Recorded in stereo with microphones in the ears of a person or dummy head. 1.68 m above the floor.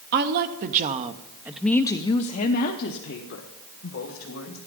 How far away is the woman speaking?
About 1.3 m.